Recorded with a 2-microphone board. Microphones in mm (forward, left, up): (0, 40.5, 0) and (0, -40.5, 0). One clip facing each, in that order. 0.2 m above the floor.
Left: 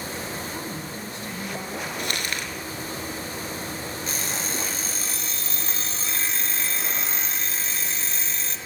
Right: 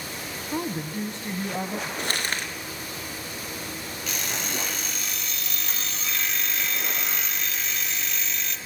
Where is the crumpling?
35° right (ahead or behind), 3 m.